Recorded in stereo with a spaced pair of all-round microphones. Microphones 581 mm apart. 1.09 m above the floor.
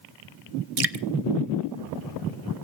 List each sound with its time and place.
0.8 s dripping: 70° right (ahead or behind), 0.8 m